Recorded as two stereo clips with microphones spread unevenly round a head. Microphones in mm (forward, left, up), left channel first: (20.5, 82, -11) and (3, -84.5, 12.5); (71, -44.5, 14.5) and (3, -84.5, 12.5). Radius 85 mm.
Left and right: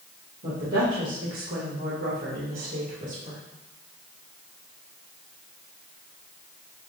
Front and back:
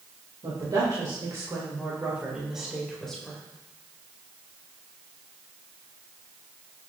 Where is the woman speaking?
130° right, 2 m; by 3.4 s 50° right, 2.5 m.